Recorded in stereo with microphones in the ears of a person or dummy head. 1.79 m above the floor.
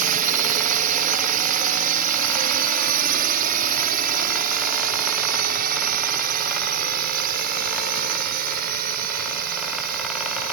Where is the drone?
40° right (ahead or behind); by 10.5 s 50° right (ahead or behind).